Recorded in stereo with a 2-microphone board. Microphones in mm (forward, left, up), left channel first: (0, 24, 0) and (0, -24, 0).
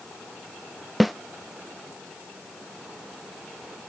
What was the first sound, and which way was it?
A snare drum, centre (ahead or behind).